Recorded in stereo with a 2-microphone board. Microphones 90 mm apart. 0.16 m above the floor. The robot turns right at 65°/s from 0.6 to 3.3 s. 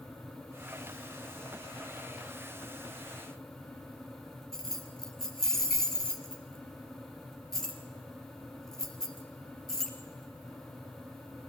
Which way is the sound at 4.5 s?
5° left (ahead or behind).